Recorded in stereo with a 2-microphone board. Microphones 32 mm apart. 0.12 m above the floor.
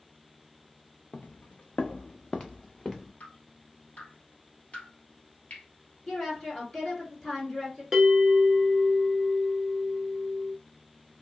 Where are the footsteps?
85° left, 0.7 m; by 3.1 s 10° left (ahead or behind), 1.0 m.